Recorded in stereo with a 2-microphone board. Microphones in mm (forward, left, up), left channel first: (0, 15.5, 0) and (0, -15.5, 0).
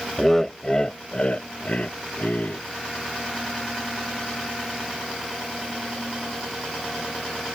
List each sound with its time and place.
0.2 s laughter: 5° left (ahead or behind); by 2.6 s 60° left (ahead or behind)